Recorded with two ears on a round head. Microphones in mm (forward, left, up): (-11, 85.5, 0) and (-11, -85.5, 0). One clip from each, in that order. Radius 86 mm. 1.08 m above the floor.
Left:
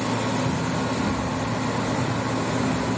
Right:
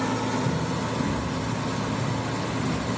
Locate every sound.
0.5 s running footsteps: 55° left (ahead or behind), 5 m; by 2.9 s 40° left (ahead or behind), 6 m